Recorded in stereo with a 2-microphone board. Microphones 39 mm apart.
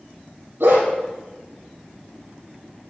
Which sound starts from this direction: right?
A dog barking, at 0.6 s.